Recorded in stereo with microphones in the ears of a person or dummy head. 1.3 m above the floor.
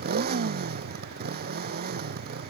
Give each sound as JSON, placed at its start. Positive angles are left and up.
{"t": 0.0, "sound": "a motorcycle", "side_deg": -45}